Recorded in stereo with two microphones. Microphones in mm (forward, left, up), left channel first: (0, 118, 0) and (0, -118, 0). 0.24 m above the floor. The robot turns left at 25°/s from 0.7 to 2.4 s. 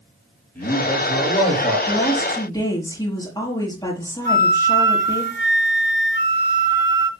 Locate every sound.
0.6 s a man speaking: 5° left (ahead or behind), 7 m; by 1.8 s 35° left (ahead or behind), 7 m
1.9 s a woman speaking: 5° left (ahead or behind), 5.5 m; by 5.2 s 15° left (ahead or behind), 5.5 m
4.2 s a flute: 50° left (ahead or behind), 2 m